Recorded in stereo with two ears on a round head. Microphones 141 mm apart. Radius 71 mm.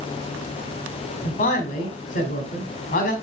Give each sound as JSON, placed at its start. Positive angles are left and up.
{"t": 1.2, "sound": "a man speaking", "side_deg": 50, "distance_m": 2.0}